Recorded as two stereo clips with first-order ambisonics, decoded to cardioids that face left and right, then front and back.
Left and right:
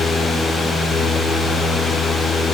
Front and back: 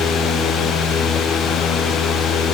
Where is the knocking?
No knocking in this recording.